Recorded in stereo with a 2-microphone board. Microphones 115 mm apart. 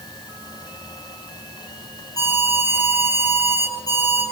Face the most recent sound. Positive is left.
turn(degrees=35)  # may be behind; listen again after turning